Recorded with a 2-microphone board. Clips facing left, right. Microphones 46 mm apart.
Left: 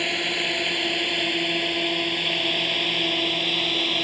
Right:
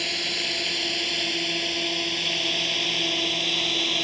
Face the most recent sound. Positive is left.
turn(degrees=10)  # may be behind; listen again after turning